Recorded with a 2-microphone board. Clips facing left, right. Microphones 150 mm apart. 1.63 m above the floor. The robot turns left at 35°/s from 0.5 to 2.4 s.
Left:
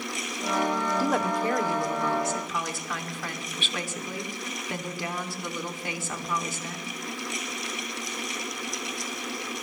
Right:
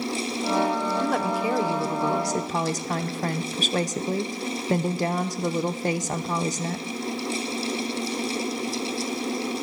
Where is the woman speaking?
5° left, 0.8 m; by 6.9 s 45° right, 0.8 m.